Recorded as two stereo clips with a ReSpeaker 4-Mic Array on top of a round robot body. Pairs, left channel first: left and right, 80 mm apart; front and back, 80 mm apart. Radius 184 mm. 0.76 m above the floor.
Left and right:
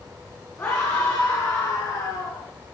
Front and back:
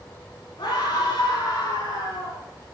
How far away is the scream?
About 9.5 m.